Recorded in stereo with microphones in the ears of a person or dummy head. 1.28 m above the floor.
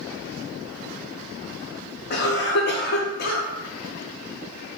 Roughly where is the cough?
Left.